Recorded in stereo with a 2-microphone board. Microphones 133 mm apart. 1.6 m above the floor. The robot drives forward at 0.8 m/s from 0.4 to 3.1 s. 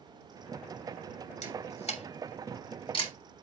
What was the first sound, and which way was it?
A camera shutter, 55° left (ahead or behind).